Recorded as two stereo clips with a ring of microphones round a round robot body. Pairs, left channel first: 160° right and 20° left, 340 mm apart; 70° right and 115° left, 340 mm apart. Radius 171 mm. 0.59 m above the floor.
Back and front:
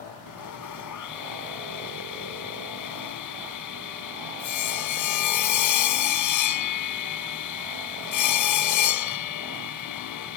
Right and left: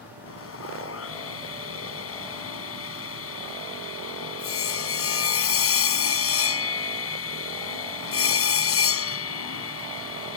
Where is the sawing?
120° right.